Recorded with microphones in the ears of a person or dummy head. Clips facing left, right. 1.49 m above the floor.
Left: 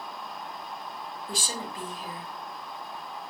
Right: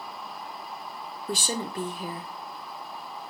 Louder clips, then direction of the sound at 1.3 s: Right 6 dB; 65° right (ahead or behind).